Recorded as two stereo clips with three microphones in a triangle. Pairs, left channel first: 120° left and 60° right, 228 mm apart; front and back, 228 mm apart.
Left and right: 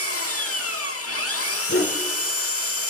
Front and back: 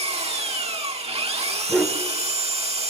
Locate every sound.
0.0 s an engine running: 120° left, 1.5 m
1.7 s a dog barking: 95° left, 5.5 m